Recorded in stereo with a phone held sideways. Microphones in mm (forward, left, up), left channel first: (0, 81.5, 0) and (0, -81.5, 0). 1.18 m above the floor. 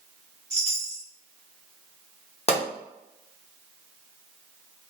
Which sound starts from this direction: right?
A chime, at 0.5 s.